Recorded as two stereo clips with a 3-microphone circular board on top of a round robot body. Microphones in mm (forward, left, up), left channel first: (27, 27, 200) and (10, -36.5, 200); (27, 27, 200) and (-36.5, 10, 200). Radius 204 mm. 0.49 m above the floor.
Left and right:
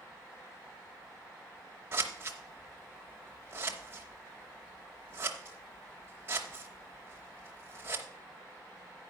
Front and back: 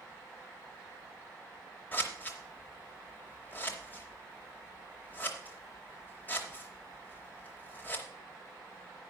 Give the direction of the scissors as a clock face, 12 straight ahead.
2 o'clock.